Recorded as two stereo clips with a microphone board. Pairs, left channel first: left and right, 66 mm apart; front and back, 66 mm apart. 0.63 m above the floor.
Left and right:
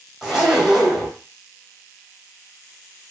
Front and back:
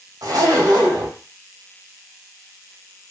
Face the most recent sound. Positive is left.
turn(degrees=-175)